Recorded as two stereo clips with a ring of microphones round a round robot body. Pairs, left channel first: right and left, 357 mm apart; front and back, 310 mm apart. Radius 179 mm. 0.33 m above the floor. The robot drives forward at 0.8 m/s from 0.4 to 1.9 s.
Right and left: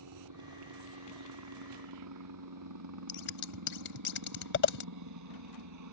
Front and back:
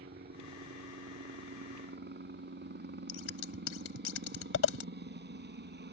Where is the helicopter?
125° left.